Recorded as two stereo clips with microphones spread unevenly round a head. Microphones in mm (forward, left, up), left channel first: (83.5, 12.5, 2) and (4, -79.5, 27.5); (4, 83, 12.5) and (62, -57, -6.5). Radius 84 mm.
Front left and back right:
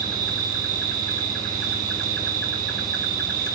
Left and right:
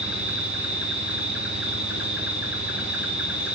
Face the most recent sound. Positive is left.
turn(degrees=-150)